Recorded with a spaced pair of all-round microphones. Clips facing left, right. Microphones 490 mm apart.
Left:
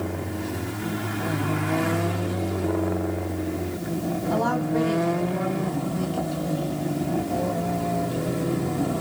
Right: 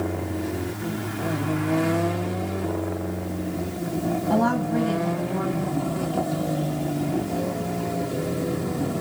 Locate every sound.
4.3 s a woman speaking: 75° right (ahead or behind), 8.5 m; by 6.8 s 70° right (ahead or behind), 6.5 m